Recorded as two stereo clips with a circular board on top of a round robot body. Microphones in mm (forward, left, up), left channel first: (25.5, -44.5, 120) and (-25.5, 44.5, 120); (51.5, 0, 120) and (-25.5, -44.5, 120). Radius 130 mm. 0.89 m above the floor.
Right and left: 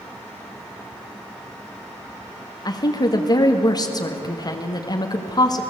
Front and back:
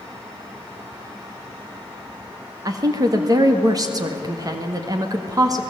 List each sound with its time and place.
2.6 s a woman speaking: 105° right, 1.8 m